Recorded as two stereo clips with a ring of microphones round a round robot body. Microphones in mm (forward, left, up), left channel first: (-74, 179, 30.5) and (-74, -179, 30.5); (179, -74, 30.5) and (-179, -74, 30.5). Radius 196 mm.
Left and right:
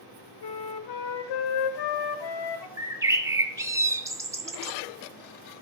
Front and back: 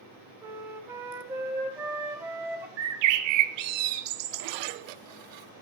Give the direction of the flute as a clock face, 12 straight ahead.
9 o'clock.